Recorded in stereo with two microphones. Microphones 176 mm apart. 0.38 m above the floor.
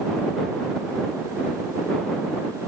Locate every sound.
Only background noise.